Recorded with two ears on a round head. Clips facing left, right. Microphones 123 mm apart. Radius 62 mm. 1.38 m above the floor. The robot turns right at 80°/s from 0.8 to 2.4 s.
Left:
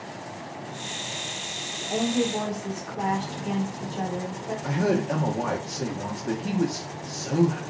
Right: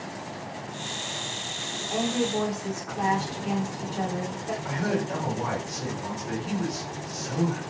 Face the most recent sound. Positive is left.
turn(degrees=65)  # may be behind; listen again after turning